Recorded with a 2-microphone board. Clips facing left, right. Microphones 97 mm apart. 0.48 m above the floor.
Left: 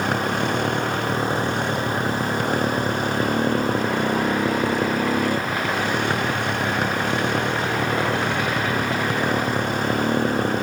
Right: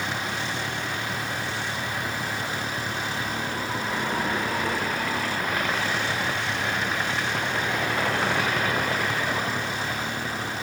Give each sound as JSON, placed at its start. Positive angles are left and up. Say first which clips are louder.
{"t": 0.0, "sound": "a motorcycle", "louder": "left 8 dB", "side_deg": 55}